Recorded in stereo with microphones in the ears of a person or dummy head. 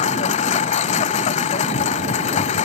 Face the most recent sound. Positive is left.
turn(degrees=35)  # may be behind; listen again after turning